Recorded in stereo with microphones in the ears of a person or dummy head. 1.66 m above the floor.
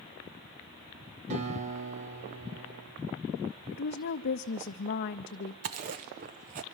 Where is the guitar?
40° right (ahead or behind), 3.5 m.